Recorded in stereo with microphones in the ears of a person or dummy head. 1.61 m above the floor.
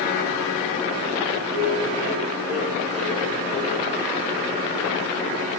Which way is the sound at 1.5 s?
30° right (ahead or behind).